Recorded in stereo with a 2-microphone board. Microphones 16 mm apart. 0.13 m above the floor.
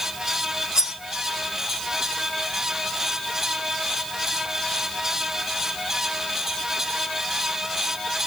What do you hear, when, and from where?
0.8 s cutlery clinking: 50° right (ahead or behind), 3.5 m